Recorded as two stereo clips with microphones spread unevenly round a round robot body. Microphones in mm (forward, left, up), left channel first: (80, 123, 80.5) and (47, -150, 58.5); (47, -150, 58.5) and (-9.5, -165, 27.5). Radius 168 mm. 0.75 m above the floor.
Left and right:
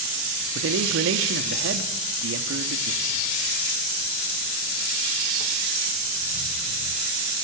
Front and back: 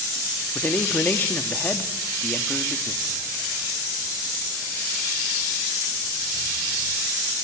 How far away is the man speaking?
About 1.5 m.